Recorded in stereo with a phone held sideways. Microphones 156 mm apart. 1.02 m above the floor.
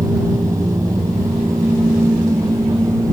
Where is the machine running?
20° right (ahead or behind).